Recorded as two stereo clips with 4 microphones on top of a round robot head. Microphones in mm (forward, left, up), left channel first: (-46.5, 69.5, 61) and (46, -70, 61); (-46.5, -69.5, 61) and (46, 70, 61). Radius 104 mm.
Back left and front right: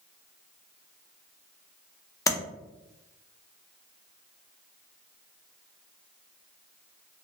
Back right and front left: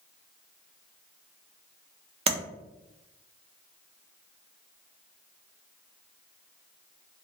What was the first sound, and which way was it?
Tapping, 65° left.